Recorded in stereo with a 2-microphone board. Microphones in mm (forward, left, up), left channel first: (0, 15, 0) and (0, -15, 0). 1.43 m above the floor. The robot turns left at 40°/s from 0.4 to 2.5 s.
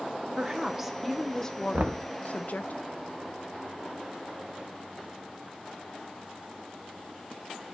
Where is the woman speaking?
155° right, 0.9 m; by 2.7 s 120° left, 0.9 m.